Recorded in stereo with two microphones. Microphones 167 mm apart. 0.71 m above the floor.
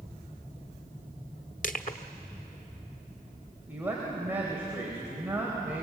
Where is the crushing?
55° left (ahead or behind), 1.1 m.